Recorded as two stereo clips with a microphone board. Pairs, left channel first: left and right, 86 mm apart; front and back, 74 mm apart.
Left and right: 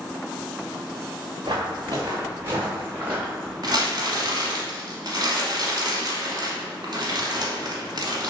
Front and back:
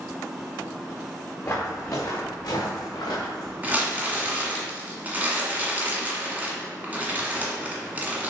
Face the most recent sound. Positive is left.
turn(degrees=-115)